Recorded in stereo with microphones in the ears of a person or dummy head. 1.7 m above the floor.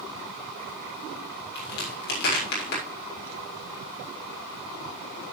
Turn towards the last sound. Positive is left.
turn(degrees=60)  # may be behind; listen again after turning